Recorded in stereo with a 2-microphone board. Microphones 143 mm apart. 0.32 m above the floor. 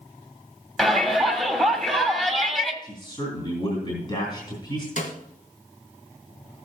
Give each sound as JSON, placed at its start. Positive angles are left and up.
{"t": 0.8, "sound": "a shout", "side_deg": 0, "distance_m": 1.7}
{"t": 2.8, "sound": "a man speaking", "side_deg": 30, "distance_m": 3.0}
{"t": 5.0, "sound": "a snare drum", "side_deg": 65, "distance_m": 1.6}